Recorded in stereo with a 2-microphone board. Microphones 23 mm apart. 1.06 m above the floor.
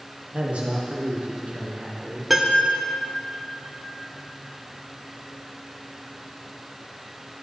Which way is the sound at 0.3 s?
65° right (ahead or behind).